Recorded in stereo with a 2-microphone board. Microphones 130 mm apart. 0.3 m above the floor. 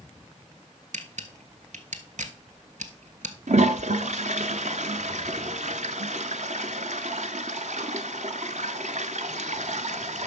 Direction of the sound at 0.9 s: 70° right (ahead or behind).